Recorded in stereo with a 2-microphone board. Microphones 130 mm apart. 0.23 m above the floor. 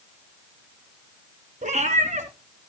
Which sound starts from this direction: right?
A cat meowing, at 1.6 s.